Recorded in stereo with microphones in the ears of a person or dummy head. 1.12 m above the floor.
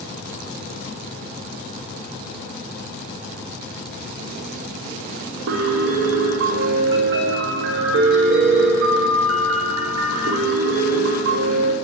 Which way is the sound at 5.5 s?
60° right (ahead or behind).